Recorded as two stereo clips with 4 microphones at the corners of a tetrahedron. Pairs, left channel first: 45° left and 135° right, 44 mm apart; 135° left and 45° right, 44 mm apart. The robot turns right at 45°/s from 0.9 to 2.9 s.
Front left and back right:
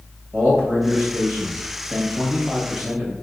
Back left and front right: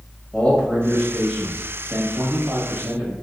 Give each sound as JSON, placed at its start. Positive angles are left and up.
{"t": 0.3, "sound": "a man speaking", "azimuth_deg": -160, "distance_m": 1.5}